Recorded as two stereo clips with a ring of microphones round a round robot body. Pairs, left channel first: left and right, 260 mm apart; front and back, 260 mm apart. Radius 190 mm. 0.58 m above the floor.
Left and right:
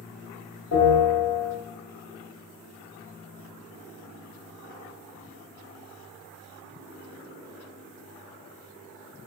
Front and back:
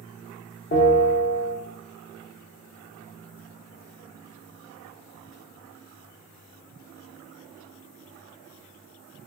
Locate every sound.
0.7 s a bell: 60° left, 0.9 m